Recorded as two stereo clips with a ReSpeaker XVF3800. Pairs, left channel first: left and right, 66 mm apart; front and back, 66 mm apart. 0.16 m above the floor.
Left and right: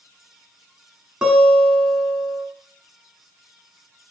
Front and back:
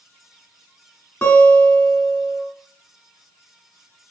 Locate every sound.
1.2 s a guitar: 20° right, 1.7 m